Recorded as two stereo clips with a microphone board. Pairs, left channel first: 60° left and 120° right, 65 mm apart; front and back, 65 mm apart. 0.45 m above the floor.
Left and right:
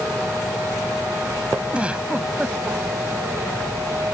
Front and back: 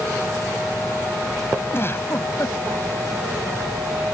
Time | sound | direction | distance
1.7 | a giggle | 50° right | ?